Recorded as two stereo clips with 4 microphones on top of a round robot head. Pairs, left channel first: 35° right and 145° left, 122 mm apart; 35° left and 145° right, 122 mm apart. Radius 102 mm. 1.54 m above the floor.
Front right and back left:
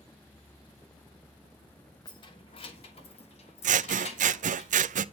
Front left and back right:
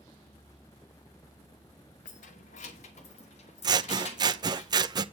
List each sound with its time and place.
2.0 s keys jangling: 20° left, 1.0 m; by 4.6 s straight ahead, 3.5 m
3.6 s scissors: 160° left, 0.5 m